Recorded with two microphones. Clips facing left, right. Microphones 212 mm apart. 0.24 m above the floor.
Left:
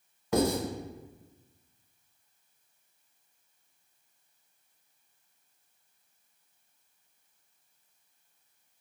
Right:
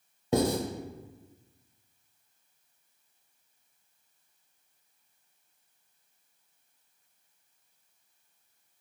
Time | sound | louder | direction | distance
0.3 | writing | even | 30° right (ahead or behind) | 0.7 m